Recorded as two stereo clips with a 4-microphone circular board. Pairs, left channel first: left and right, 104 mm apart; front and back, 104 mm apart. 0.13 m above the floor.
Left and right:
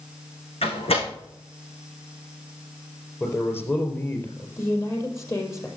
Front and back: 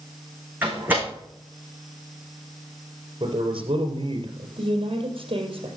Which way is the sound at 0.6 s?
105° left.